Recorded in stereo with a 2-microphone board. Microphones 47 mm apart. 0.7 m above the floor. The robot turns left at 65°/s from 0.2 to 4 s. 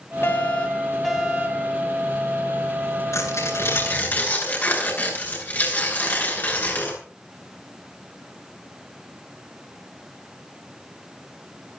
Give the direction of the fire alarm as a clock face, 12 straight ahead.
10 o'clock.